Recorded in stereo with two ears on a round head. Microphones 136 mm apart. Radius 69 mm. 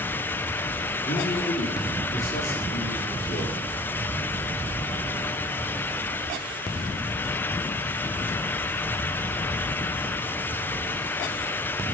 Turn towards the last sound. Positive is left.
turn(degrees=60)  # may be behind; listen again after turning